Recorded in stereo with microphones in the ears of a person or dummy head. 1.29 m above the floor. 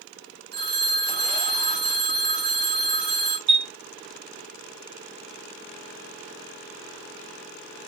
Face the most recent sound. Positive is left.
turn(degrees=-45)  # may be behind; listen again after turning